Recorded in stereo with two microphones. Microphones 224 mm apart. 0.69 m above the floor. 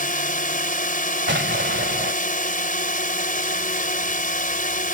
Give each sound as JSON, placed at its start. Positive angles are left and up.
{"t": 0.0, "sound": "a drone", "side_deg": 35}
{"t": 1.3, "sound": "an explosion", "side_deg": -55}